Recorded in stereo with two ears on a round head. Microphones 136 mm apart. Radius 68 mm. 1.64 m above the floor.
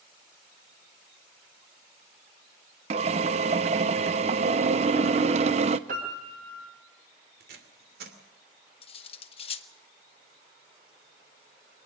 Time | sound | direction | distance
2.9 | a drill | 45° right (ahead or behind) | 0.7 m
5.9 | a piano | 55° right (ahead or behind) | 5 m
7.4 | tape being pulled | 70° right (ahead or behind) | 2.5 m
8.8 | cutlery clinking | 40° left (ahead or behind) | 1.0 m